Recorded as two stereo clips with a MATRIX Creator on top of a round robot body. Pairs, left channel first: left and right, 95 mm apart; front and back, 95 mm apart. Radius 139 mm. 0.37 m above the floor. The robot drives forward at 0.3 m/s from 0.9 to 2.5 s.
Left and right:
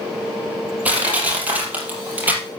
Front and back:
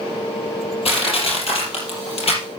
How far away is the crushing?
About 4.5 m.